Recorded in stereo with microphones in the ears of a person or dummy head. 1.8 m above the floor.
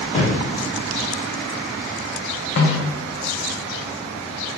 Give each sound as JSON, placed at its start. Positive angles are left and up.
{"t": 0.1, "sound": "a thud", "side_deg": 25, "distance_m": 1.4}
{"t": 2.6, "sound": "a snare drum", "side_deg": 45, "distance_m": 1.0}